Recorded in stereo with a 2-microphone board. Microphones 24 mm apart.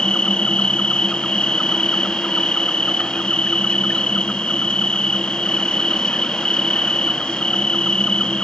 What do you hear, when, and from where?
0.0 s an insect: 45° left (ahead or behind)